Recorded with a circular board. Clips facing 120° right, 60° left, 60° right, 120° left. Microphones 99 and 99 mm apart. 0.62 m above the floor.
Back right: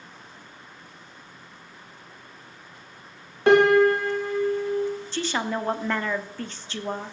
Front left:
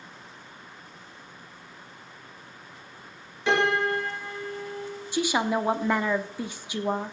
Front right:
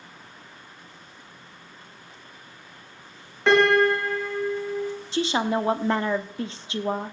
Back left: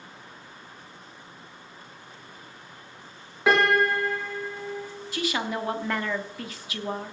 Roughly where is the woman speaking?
Ahead.